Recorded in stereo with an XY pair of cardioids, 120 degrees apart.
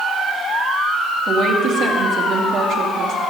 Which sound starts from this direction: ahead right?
A woman speaking, at 1.3 s.